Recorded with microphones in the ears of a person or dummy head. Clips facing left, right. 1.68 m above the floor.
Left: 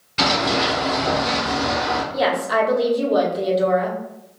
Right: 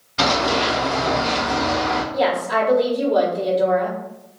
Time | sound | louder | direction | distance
0.2 | running footsteps | right 1 dB | 35° left (ahead or behind) | 2.0 m
2.1 | a woman speaking | left 1 dB | 10° left (ahead or behind) | 0.9 m